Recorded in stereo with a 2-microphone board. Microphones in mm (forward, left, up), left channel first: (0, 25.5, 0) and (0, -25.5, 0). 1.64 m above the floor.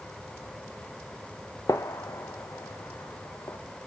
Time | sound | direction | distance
1.7 | a gunshot | 85° left | 0.7 m